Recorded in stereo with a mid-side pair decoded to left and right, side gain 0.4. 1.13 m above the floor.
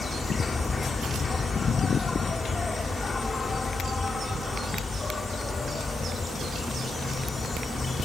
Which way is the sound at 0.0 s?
40° left.